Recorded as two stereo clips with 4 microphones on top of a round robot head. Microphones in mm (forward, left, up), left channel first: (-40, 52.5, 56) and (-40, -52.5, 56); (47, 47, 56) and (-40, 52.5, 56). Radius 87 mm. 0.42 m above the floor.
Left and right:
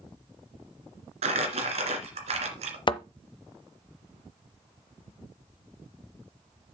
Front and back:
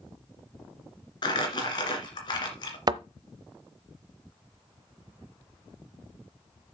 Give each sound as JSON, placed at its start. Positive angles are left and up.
{"t": 1.2, "sound": "crumpling", "azimuth_deg": -55, "distance_m": 2.0}
{"t": 2.9, "sound": "a thud", "azimuth_deg": 135, "distance_m": 0.8}